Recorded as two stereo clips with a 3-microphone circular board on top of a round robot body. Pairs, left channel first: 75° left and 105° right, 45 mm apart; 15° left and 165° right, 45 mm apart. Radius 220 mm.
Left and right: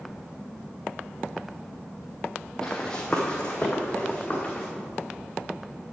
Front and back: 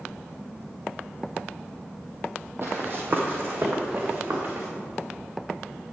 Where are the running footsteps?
155° left, 1.0 m; by 4.7 s 150° left, 3 m.